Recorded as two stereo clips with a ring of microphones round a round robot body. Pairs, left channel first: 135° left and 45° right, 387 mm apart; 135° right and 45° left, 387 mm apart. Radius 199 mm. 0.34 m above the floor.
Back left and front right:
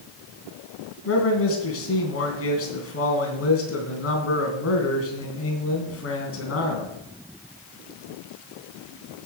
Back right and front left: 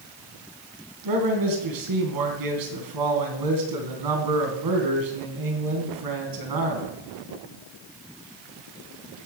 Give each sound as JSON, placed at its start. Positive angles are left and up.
{"t": 1.1, "sound": "a man speaking", "azimuth_deg": 80, "distance_m": 3.0}